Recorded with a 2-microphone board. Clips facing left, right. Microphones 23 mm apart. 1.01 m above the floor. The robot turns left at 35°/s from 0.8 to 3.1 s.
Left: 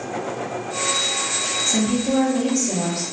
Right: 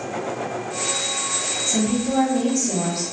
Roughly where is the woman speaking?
Ahead left.